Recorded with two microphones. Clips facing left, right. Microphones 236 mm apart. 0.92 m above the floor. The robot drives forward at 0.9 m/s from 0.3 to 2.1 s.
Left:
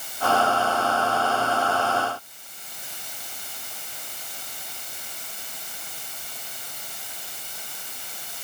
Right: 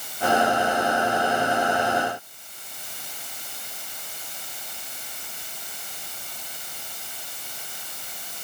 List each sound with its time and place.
Only background noise.